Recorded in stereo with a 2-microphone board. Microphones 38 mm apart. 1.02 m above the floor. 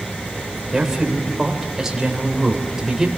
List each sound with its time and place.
0.7 s a man speaking: 15° right (ahead or behind), 3.5 m